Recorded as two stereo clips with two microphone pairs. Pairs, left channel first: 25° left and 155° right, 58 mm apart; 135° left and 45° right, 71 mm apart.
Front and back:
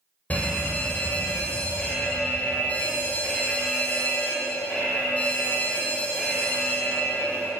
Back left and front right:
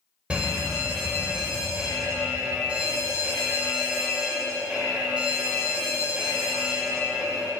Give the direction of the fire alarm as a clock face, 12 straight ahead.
12 o'clock.